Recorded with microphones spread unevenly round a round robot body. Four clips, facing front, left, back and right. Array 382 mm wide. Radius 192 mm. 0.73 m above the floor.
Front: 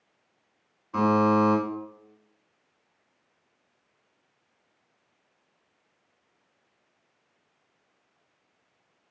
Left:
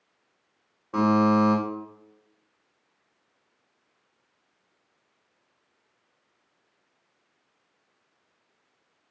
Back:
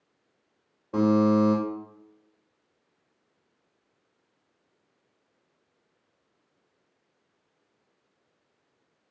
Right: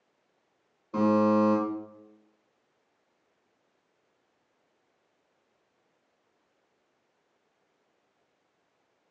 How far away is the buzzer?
About 0.9 m.